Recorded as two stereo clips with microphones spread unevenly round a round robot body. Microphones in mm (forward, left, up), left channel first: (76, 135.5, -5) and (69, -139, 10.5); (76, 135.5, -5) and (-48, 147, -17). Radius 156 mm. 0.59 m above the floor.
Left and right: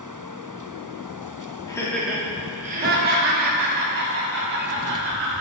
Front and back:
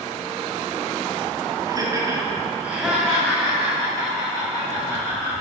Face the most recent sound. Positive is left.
turn(degrees=-70)